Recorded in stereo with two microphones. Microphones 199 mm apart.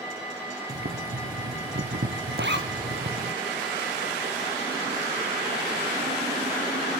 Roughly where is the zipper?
Right.